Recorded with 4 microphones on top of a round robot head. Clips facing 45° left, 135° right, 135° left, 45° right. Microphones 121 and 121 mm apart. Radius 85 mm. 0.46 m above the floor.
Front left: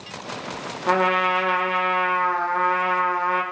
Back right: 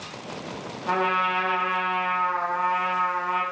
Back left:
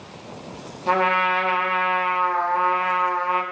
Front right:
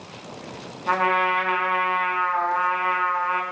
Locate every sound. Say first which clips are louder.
0.9 s a trumpet: front left 4 dB, back left 1 dB; 75° left, 0.6 m